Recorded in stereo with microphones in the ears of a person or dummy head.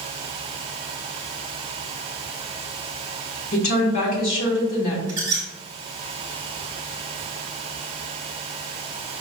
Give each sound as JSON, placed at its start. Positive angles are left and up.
{"t": 3.5, "sound": "a woman speaking", "side_deg": 45, "distance_m": 1.2}
{"t": 5.1, "sound": "a squeak", "side_deg": -25, "distance_m": 1.1}